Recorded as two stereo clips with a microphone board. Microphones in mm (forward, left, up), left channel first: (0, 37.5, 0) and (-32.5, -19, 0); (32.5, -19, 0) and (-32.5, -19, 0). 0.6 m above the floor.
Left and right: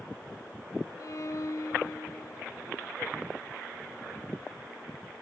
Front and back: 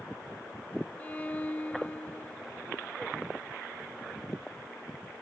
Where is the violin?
55° left, 1.0 m.